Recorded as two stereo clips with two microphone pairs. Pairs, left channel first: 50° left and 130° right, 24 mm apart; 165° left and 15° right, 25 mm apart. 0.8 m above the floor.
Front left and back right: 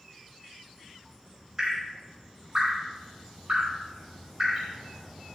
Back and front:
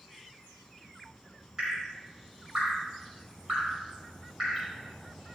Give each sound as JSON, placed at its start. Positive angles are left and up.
{"t": 1.6, "sound": "dripping", "azimuth_deg": -75, "distance_m": 5.0}